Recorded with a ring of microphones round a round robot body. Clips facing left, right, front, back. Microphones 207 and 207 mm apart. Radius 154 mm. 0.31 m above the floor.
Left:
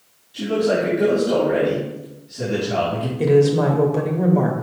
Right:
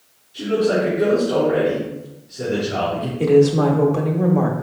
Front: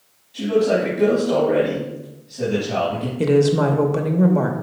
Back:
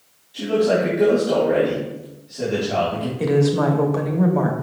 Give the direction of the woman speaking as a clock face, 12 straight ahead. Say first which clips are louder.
Right 2 dB, front 2 dB; 11 o'clock.